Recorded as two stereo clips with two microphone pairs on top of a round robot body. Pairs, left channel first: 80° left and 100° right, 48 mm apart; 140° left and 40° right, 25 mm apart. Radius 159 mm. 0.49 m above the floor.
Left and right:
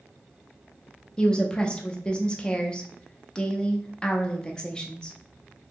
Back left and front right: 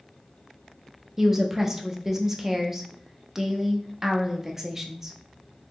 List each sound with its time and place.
1.2 s a woman speaking: 5° left, 0.7 m